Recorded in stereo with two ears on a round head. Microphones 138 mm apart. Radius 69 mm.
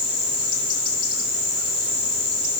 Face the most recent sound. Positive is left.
No sound to turn to.